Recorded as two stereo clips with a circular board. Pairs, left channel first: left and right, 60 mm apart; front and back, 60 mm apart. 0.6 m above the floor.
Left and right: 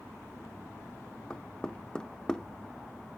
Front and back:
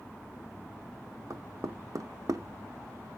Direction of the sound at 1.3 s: 165° left.